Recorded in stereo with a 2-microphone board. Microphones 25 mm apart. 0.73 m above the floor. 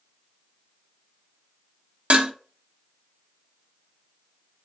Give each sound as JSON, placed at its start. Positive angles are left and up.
{"t": 2.1, "sound": "dishes clattering", "side_deg": -65, "distance_m": 0.8}